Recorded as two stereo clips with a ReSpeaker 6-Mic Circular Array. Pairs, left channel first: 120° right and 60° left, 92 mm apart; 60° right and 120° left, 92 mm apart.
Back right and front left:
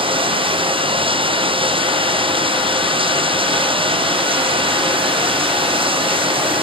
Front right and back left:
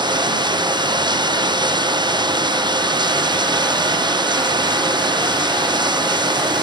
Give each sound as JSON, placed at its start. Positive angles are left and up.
{"t": 0.0, "sound": "running water", "azimuth_deg": 80}